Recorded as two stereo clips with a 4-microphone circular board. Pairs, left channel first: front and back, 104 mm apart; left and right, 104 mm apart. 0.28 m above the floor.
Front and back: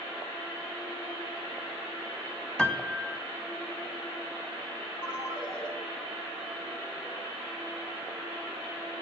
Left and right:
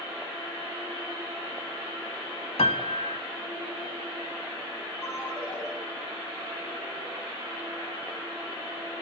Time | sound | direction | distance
2.6 | a piano | 85° left | 0.7 m
5.0 | a ringtone | 30° right | 4.5 m